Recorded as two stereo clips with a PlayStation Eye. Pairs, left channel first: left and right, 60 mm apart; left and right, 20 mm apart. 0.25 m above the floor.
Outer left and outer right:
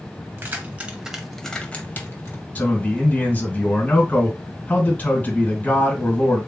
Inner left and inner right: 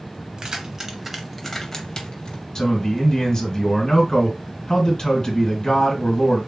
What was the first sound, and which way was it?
Keys jangling, 35° right (ahead or behind).